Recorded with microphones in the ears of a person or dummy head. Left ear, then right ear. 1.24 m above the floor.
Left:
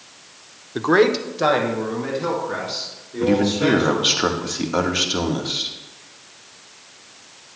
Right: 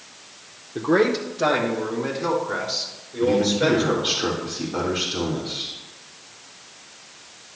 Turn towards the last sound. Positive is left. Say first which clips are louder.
# left 1 dB
turn(degrees=70)  # may be behind; listen again after turning